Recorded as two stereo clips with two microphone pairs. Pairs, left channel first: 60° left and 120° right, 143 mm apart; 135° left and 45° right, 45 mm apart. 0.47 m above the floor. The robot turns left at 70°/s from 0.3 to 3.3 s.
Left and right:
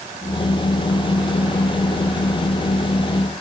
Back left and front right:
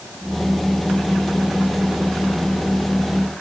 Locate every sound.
Only background noise.